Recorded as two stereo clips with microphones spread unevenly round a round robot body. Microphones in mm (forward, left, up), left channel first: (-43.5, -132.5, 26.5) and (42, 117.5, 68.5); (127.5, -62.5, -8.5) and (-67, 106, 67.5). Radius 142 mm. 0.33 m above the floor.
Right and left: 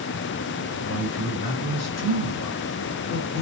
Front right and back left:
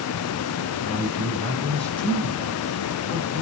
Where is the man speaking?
120° right, 6.5 m; by 3.4 s 130° right, 3.5 m.